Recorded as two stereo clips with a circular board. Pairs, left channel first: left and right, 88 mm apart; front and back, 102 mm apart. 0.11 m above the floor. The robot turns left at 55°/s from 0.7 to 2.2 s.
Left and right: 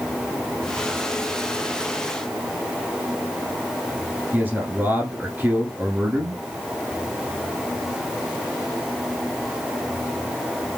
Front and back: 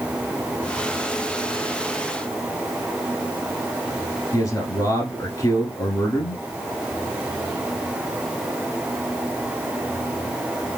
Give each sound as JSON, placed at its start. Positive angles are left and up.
{"t": 4.3, "sound": "a man speaking", "azimuth_deg": -30, "distance_m": 1.3}